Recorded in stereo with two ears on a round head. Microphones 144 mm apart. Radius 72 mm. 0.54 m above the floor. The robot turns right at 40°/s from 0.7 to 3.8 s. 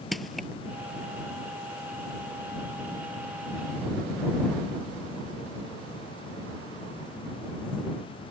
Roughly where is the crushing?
Centre.